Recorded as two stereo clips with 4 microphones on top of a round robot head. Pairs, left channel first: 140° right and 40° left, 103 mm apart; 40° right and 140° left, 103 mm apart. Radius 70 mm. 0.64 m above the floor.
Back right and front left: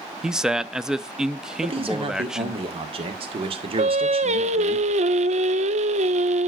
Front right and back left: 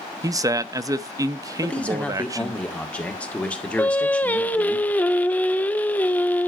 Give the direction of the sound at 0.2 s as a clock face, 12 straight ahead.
8 o'clock.